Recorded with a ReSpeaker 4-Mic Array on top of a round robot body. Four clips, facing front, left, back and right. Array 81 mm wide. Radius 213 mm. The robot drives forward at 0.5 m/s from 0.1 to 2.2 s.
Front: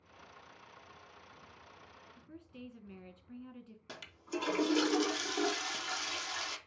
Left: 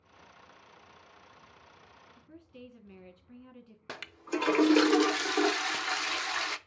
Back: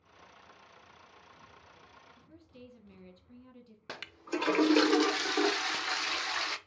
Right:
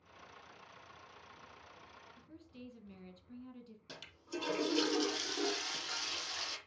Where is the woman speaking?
50° left, 1.2 m.